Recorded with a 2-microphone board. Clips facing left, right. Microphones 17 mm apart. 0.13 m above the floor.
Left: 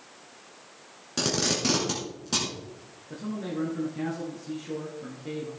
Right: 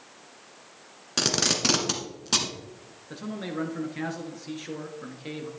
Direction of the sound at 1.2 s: 25° right (ahead or behind).